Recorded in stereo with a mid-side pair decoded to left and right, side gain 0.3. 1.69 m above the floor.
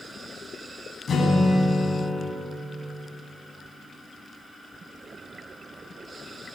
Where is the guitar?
60° left, 9.5 m.